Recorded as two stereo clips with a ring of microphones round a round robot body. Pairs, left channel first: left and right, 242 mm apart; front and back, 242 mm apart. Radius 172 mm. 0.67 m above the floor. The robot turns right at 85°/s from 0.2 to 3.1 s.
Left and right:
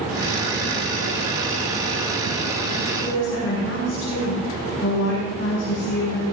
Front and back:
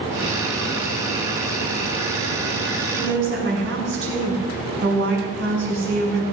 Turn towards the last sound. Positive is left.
turn(degrees=145)